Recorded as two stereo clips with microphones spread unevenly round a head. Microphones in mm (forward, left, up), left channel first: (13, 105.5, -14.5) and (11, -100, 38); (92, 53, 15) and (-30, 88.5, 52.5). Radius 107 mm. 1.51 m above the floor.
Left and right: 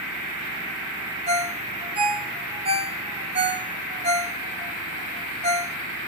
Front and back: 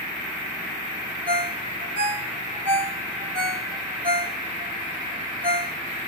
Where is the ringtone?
150° right, 1.8 m.